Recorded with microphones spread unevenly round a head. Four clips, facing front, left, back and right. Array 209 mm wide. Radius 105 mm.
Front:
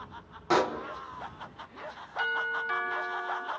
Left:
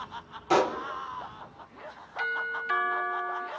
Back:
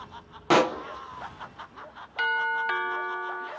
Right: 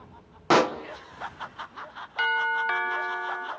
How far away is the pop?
About 1.5 m.